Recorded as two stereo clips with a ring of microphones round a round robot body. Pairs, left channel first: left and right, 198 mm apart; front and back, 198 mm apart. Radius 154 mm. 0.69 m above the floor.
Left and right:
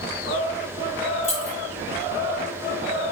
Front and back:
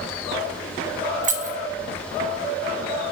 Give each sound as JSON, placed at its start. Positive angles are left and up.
{"t": 1.2, "sound": "keys jangling", "azimuth_deg": 140, "distance_m": 0.7}